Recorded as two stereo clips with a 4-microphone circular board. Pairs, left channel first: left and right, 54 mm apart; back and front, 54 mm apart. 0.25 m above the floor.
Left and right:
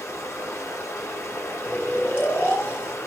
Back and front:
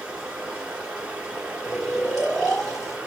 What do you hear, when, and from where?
0.0 s running water: 75° left, 1.4 m
1.6 s snoring: 100° left, 1.7 m